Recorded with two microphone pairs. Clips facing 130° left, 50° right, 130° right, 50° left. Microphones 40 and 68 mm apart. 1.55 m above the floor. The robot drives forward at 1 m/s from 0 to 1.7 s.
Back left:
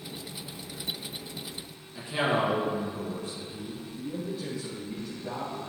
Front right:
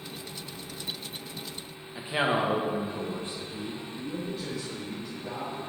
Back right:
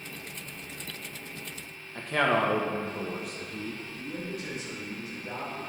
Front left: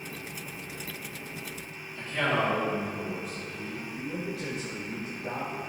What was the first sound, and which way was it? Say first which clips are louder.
A man speaking: even, back right 3 dB; 110° right.